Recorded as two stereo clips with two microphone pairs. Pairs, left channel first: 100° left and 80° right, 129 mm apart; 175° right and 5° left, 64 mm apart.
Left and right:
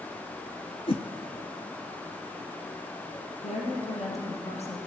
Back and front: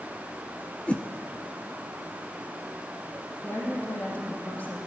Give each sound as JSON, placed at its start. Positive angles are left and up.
{"t": 0.9, "sound": "a whoosh", "azimuth_deg": 120, "distance_m": 0.6}
{"t": 3.4, "sound": "a woman speaking", "azimuth_deg": 125, "distance_m": 3.0}